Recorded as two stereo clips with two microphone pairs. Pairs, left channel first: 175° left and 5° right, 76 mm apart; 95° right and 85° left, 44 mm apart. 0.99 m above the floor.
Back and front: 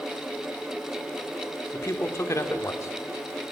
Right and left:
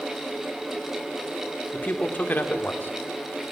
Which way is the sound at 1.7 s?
135° right.